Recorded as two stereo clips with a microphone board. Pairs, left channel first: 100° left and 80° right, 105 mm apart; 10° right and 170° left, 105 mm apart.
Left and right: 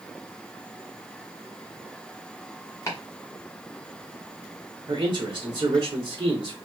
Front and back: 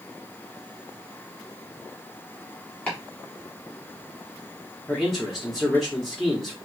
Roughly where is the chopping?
Ahead left.